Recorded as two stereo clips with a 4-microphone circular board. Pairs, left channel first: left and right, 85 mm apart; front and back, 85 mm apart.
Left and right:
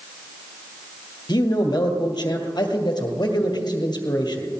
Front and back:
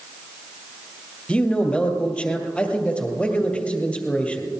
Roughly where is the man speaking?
Left.